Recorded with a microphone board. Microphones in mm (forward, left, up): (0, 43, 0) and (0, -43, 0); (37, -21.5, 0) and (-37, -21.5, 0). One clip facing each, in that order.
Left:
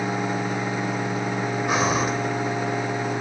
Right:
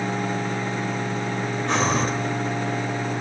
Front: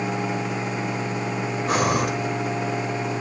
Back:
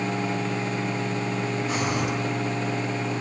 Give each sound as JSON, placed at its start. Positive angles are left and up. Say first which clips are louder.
{"t": 1.7, "sound": "breathing", "louder": "even, front 8 dB", "azimuth_deg": 10, "distance_m": 3.0}